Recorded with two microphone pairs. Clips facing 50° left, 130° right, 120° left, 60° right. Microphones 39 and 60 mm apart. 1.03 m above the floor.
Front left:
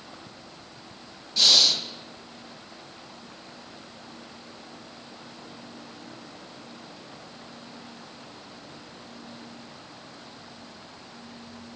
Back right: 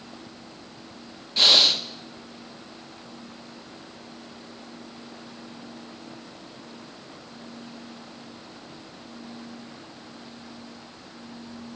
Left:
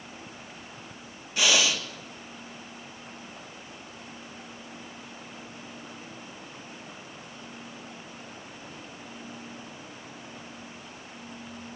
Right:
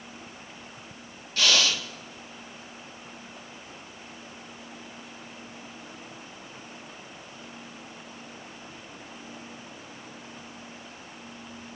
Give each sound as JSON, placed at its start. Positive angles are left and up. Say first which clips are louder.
{"t": 1.4, "sound": "breathing", "louder": "back right 2 dB, even", "azimuth_deg": -170, "distance_m": 1.3}